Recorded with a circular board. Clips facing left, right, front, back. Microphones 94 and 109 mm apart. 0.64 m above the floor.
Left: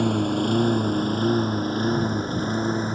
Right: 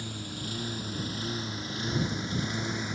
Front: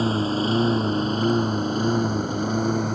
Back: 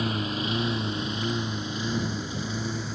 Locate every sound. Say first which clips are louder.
0.0 s a lawn mower: left 17 dB, front 7 dB; 60° left; by 3.0 s 35° left